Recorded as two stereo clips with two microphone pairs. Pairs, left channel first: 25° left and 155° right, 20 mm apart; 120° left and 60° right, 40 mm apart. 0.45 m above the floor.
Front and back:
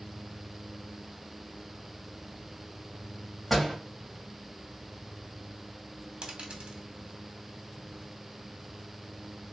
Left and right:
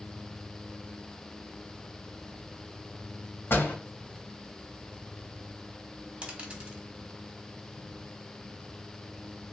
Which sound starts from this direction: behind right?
A dropped coin, at 6.2 s.